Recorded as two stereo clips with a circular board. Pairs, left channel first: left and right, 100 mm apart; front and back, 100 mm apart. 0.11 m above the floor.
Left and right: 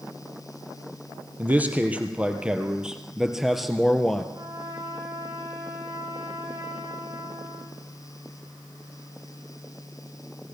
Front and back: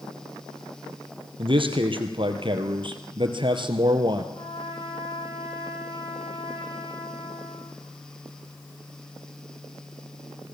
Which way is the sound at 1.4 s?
160° right.